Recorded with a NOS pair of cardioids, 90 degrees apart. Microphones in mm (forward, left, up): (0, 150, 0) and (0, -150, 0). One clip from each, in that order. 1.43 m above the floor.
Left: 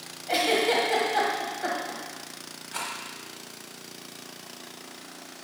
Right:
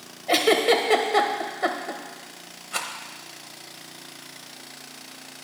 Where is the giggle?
55° right, 1.3 m.